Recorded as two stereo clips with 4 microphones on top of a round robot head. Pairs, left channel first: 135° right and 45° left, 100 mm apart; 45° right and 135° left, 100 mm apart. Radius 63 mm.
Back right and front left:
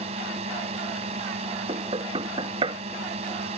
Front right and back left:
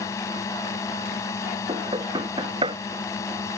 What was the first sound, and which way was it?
A drone, 20° left.